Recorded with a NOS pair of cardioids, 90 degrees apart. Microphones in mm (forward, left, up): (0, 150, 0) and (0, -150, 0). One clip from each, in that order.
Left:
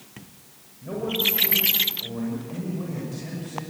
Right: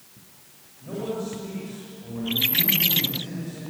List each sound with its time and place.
0.8 s a man speaking: 30° left, 6.5 m